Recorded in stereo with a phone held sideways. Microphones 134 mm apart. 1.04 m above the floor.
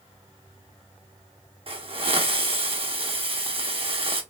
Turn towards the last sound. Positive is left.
turn(degrees=-45)  # may be behind; listen again after turning